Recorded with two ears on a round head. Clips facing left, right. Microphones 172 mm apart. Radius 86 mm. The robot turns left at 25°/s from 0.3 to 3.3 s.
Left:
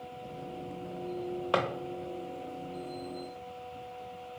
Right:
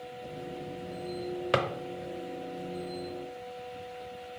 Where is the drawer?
25° right (ahead or behind), 0.6 m; by 1.7 s 20° right (ahead or behind), 0.6 m.